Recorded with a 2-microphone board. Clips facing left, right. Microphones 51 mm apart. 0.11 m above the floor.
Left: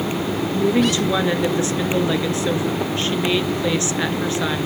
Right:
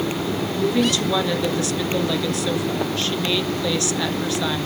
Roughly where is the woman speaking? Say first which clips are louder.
Left 3 dB; left.